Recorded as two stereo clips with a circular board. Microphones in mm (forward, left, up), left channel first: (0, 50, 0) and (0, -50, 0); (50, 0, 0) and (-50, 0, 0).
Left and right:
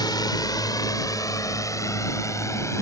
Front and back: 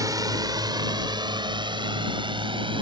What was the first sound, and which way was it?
A drone, 130° left.